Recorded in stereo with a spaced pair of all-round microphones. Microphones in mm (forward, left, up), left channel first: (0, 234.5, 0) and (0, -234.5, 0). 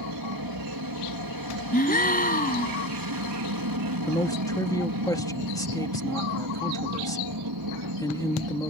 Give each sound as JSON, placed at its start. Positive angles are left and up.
{"t": 0.0, "sound": "an aircraft", "side_deg": -45}
{"t": 1.7, "sound": "a gasp", "side_deg": 20}
{"t": 4.1, "sound": "a man speaking", "side_deg": 5}